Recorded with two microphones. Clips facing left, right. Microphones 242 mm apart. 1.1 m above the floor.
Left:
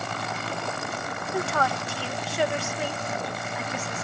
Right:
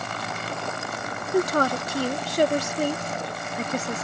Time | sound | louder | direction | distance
1.3 | a woman speaking | right 7 dB | 40° right (ahead or behind) | ?